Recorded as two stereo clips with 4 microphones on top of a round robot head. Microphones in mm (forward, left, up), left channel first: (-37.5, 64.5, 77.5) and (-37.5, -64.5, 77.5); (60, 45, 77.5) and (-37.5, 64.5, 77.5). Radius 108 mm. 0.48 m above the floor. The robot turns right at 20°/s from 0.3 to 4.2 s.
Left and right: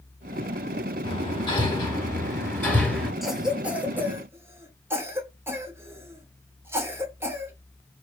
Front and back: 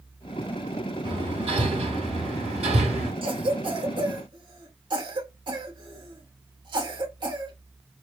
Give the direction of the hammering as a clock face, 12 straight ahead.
7 o'clock.